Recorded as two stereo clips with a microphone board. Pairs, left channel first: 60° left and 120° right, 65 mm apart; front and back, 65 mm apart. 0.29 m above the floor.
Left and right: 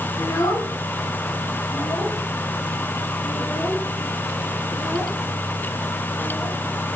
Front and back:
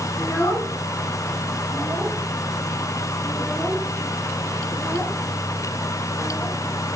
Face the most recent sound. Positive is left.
turn(degrees=55)